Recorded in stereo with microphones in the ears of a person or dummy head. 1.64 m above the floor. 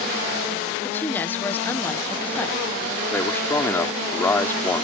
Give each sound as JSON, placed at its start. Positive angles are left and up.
{"t": 0.8, "sound": "a woman speaking", "side_deg": 10}
{"t": 3.1, "sound": "a man speaking", "side_deg": 15}